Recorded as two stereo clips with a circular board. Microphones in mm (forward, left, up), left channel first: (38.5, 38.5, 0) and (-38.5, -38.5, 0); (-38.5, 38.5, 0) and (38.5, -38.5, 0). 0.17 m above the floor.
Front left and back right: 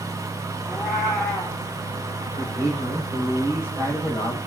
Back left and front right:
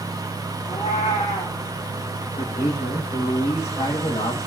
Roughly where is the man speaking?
Behind left.